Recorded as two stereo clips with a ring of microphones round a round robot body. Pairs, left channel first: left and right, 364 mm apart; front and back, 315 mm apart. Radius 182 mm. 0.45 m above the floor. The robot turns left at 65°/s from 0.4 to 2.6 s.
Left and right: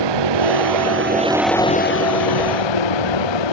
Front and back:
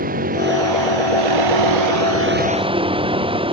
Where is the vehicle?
110° right; by 3.5 s 105° left.